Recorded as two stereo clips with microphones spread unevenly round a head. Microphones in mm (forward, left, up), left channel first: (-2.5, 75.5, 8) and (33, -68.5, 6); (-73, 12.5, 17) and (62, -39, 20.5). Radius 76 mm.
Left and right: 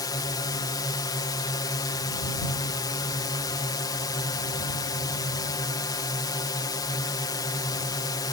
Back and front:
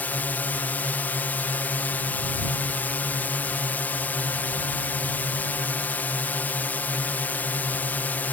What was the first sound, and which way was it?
A drone, 100° left.